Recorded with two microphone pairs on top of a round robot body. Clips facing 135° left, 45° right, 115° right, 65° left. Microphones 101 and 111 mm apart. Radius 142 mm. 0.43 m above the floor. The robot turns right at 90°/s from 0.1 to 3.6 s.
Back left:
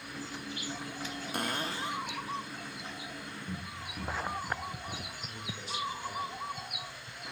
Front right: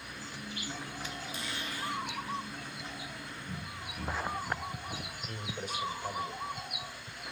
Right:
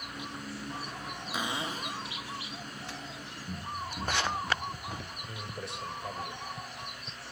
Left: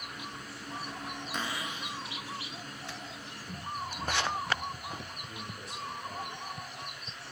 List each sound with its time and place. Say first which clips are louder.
1.3 s a cupboard door: back left 8 dB, right 4 dB; 160° left, 0.7 m; by 2.1 s 130° right, 0.7 m
3.5 s running footsteps: back left 1 dB, even; 175° left, 7 m; by 5.2 s 165° right, 8 m
5.3 s a man speaking: front right 4 dB, right 3 dB; 85° right, 2 m